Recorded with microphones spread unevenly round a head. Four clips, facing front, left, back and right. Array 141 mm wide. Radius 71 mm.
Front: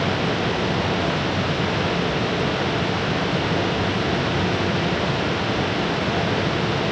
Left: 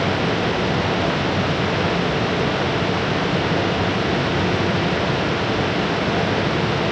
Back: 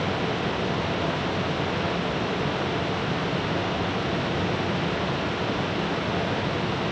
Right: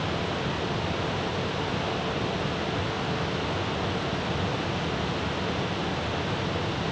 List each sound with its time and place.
Only background noise.